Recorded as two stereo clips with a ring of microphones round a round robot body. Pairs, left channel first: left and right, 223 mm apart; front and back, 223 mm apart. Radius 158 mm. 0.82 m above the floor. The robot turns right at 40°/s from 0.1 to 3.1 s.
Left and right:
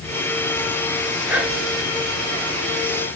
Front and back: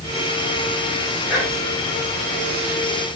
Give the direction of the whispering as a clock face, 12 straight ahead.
1 o'clock.